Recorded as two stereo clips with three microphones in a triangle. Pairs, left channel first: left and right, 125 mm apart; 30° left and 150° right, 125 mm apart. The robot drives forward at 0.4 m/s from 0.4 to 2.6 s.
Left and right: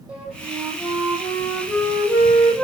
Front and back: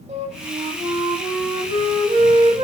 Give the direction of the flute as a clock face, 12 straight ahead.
6 o'clock.